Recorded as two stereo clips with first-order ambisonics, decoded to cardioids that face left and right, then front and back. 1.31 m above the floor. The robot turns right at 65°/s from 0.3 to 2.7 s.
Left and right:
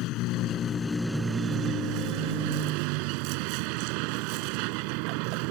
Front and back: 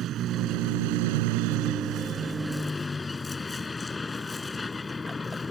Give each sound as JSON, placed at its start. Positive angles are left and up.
{"t": 0.0, "sound": "a vehicle", "azimuth_deg": 125}